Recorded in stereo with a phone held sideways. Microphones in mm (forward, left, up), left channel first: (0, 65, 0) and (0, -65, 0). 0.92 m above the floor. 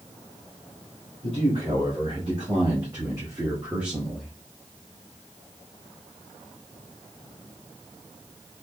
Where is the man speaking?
50° right (ahead or behind), 2 m; by 4.3 s centre (ahead or behind), 1.1 m.